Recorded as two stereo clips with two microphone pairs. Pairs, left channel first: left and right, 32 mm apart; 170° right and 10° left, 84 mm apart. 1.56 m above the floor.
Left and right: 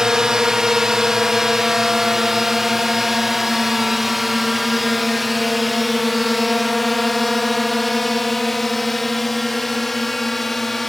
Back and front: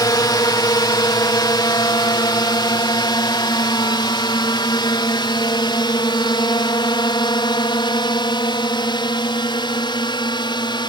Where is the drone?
155° right; by 10.9 s 175° left.